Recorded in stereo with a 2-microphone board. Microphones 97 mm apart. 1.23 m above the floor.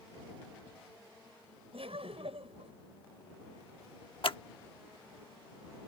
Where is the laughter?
85° right.